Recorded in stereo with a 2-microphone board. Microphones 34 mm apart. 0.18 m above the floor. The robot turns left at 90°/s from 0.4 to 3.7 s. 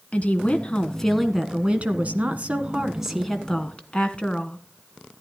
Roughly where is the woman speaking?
Left.